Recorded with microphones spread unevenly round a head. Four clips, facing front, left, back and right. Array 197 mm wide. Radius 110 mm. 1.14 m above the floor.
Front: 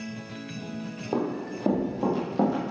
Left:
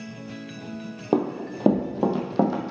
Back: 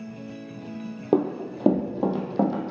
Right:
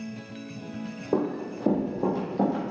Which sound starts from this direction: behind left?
Running footsteps, at 1.1 s.